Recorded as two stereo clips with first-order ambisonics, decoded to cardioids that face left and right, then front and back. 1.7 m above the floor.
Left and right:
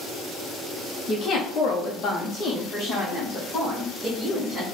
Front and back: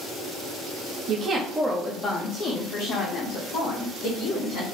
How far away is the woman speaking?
About 0.7 m.